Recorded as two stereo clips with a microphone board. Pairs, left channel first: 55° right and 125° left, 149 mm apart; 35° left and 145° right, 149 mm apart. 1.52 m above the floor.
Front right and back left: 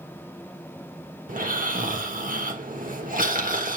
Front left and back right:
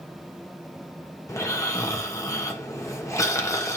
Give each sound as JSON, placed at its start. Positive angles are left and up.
{"t": 1.3, "sound": "snoring", "azimuth_deg": 105, "distance_m": 1.8}